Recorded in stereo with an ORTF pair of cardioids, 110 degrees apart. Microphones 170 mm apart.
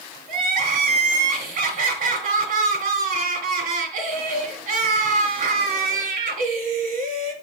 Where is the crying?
55° right, 3 m.